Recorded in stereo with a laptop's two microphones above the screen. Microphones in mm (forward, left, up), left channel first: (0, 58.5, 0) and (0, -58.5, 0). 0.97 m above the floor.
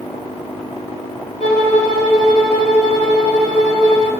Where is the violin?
55° left (ahead or behind), 1.6 m.